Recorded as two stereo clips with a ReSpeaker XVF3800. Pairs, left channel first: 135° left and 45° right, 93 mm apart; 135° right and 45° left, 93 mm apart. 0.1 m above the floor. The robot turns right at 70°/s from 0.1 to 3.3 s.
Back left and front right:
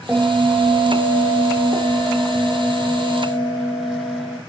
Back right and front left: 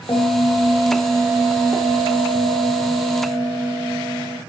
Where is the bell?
115° right, 1.0 m; by 4.4 s 110° left, 1.0 m.